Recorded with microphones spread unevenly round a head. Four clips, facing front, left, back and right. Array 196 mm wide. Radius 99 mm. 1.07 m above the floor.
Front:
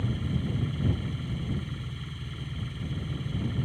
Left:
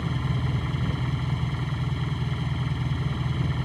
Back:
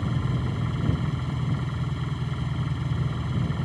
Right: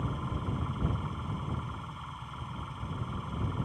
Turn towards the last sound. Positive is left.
turn(degrees=125)